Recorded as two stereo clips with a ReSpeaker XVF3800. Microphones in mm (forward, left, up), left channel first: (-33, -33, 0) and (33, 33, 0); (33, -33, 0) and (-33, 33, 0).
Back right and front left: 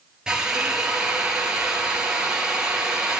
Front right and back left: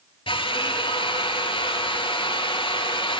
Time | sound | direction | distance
0.3 | a drill | 35° right | 4 m